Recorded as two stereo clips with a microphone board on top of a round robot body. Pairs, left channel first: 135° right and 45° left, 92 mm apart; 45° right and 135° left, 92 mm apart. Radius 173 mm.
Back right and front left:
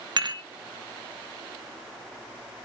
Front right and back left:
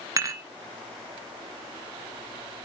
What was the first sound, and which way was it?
Dishes clattering, 80° left.